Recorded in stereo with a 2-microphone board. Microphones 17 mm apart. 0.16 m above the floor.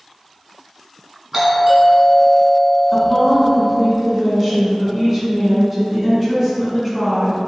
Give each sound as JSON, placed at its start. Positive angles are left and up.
{"t": 1.3, "sound": "a doorbell", "side_deg": -10, "distance_m": 1.5}
{"t": 2.9, "sound": "a woman speaking", "side_deg": 10, "distance_m": 1.6}